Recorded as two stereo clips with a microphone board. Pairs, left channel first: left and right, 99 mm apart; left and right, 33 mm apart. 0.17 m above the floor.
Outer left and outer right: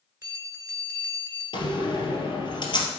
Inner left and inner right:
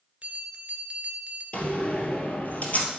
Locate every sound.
0.2 s a bell: 25° right (ahead or behind), 1.9 m
1.5 s a door slam: 50° left (ahead or behind), 2 m